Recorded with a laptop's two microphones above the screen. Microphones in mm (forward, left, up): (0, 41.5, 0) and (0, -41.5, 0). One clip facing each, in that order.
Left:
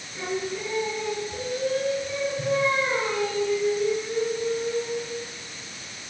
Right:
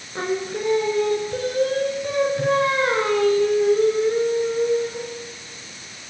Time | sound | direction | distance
0.1 | singing | 65° right (ahead or behind) | 3 m